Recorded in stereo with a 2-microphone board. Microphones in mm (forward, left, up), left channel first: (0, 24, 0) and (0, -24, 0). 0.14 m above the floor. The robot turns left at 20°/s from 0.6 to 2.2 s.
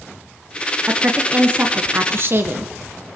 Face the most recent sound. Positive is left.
turn(degrees=-50)  # may be behind; listen again after turning